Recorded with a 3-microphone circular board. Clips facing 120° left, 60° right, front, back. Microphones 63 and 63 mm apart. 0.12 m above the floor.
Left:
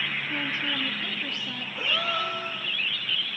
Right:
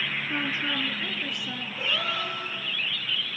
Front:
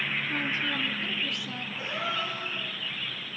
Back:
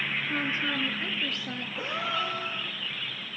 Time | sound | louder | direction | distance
0.3 | a woman speaking | right 1 dB, back 1 dB | 120° right | 2 m
1.8 | a gasp | left 2 dB, back 1 dB | 165° right | 10 m